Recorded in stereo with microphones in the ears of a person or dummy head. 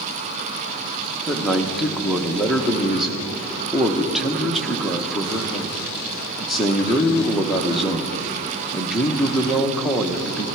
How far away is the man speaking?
About 0.8 m.